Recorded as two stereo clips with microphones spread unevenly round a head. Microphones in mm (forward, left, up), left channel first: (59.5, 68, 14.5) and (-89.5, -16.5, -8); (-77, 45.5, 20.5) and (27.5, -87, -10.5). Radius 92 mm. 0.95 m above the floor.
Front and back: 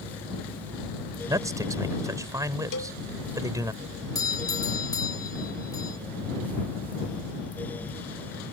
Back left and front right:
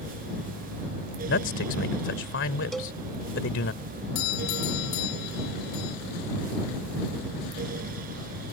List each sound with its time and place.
1.3 s a man speaking: 140° left
2.7 s a cowbell: 40° left
4.2 s a doorbell: 100° left